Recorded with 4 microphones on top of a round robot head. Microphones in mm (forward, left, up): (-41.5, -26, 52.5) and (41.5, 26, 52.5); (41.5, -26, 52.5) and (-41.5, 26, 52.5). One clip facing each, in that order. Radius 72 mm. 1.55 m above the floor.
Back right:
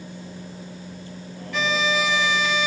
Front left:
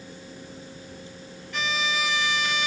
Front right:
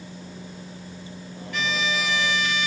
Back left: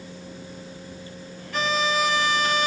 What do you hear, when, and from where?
0.0 s a vehicle: 110° right; by 2.7 s 100° right
1.5 s a violin: 160° right